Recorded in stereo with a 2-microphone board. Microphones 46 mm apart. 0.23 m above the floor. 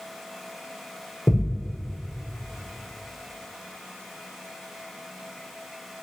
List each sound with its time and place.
1.3 s a thud: 35° left (ahead or behind), 5 m